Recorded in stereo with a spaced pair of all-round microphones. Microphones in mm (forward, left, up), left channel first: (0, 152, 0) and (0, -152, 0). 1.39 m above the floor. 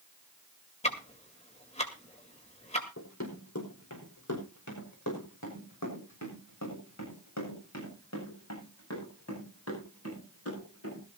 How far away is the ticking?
About 2 m.